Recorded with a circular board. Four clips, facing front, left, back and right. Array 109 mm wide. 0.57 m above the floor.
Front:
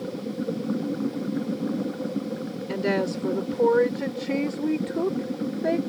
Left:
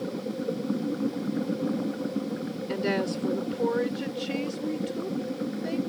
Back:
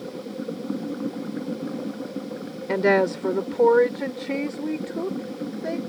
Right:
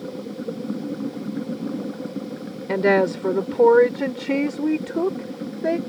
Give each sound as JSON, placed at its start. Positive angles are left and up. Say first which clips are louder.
{"t": 2.7, "sound": "a woman speaking", "louder": "right 10 dB, back 6 dB", "azimuth_deg": -130}